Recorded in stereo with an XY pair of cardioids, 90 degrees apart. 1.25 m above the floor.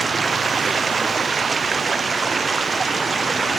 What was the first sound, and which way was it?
Running water, 35° right.